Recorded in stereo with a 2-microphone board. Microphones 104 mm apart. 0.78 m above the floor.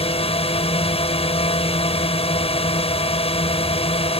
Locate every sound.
0.0 s a drone: 70° left (ahead or behind)